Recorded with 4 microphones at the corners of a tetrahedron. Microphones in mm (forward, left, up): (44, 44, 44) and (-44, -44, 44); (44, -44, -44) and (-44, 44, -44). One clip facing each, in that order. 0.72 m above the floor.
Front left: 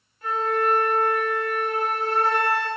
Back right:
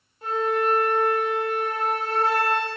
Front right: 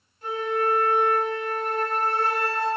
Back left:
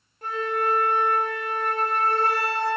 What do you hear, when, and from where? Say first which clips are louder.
0.2 s a flute: even, front right 1 dB; 165° left, 0.8 m